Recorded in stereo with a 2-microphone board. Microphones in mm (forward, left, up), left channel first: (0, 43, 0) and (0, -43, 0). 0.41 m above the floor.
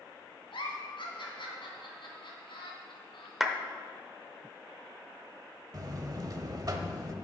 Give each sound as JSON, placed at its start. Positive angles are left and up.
{"t": 0.5, "sound": "a giggle", "side_deg": 75, "distance_m": 2.5}
{"t": 3.4, "sound": "a clap", "side_deg": -5, "distance_m": 0.8}
{"t": 5.7, "sound": "a buzzer", "side_deg": -45, "distance_m": 0.9}